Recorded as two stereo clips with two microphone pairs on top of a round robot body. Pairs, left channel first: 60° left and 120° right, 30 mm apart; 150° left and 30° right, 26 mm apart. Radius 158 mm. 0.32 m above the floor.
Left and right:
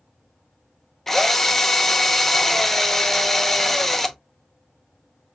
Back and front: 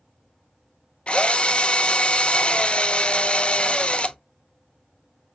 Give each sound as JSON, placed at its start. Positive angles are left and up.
{"t": 1.1, "sound": "a drill", "azimuth_deg": 140, "distance_m": 0.7}